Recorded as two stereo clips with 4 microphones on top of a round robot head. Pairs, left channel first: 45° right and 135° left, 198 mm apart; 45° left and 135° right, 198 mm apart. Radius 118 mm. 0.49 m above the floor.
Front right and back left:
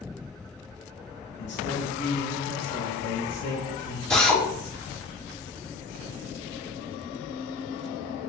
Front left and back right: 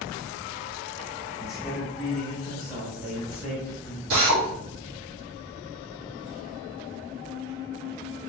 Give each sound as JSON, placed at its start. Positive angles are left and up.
{"t": 1.4, "sound": "a man speaking", "azimuth_deg": -45, "distance_m": 1.7}
{"t": 4.1, "sound": "a drill", "azimuth_deg": -130, "distance_m": 1.3}